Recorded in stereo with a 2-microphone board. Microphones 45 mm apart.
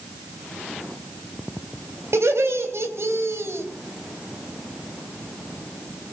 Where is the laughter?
75° right (ahead or behind), 4 m.